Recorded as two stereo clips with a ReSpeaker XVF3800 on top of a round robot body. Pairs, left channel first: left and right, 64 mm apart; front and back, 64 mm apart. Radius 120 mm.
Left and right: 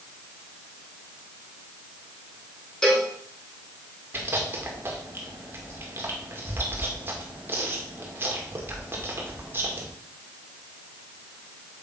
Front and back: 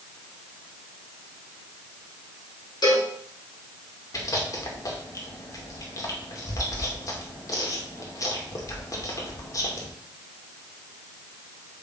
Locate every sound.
2.8 s a cowbell: 10° left, 4.5 m
4.1 s chewing: 35° right, 2 m